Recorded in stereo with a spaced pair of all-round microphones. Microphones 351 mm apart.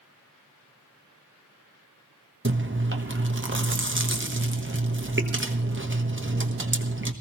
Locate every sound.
2.5 s chewing: 35° right (ahead or behind), 1.2 m